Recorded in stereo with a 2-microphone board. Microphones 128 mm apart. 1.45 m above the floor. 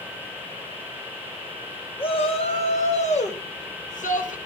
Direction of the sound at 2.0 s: 45° left (ahead or behind).